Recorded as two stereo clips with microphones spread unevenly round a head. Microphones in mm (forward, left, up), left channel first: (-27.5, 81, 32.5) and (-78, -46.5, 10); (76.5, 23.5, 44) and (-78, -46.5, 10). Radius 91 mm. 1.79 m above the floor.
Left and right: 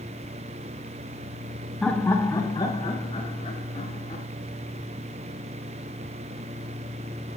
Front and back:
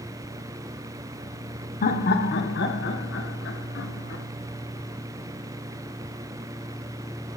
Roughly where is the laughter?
Ahead.